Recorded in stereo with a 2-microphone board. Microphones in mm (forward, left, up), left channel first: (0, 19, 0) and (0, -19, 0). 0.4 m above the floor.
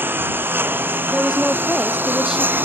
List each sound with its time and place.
0.0 s a lawn mower: 65° right (ahead or behind); by 2.7 s 60° right (ahead or behind)
1.1 s a woman speaking: 5° right (ahead or behind)